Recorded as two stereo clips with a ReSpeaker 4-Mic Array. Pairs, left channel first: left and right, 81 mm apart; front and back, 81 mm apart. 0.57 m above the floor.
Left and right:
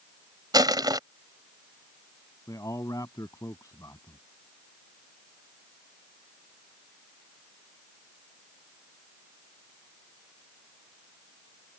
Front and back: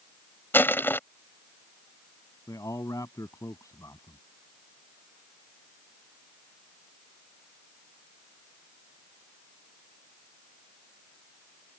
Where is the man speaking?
45° left.